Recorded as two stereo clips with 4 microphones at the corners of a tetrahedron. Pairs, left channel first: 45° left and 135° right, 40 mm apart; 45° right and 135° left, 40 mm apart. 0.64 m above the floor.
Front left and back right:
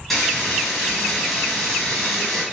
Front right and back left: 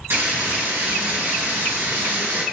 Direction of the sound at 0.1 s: 130° left.